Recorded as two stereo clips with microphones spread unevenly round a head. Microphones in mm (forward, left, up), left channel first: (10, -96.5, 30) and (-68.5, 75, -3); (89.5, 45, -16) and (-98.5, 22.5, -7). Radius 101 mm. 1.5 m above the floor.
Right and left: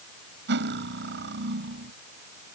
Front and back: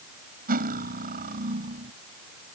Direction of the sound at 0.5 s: 145° left.